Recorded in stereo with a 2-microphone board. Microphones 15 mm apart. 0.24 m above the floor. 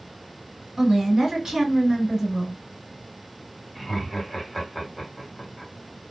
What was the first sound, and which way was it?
A woman speaking, 45° right (ahead or behind).